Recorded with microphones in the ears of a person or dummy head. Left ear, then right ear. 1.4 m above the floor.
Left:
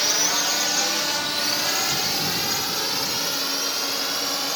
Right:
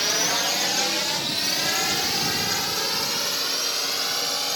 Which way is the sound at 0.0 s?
20° left (ahead or behind).